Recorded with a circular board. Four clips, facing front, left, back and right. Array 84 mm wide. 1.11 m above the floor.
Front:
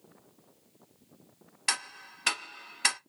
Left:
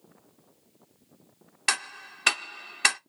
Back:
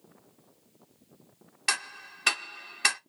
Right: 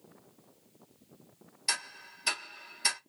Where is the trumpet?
I don't hear a trumpet.